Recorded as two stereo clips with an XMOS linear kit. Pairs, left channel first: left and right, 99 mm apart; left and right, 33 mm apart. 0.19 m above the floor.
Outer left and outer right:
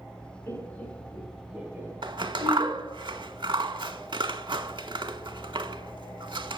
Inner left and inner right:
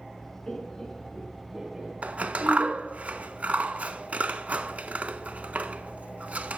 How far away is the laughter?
About 2 m.